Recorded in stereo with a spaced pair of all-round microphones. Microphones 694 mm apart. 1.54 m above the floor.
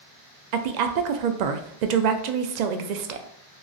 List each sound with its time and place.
0.5 s a woman speaking: 80° right, 0.5 m